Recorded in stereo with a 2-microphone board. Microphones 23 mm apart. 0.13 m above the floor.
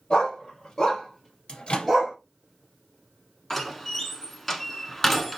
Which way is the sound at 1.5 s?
50° left (ahead or behind).